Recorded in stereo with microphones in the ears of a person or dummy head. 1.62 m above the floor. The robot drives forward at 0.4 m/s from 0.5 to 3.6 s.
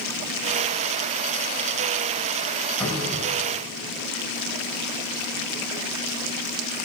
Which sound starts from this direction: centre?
A cupboard door, at 2.8 s.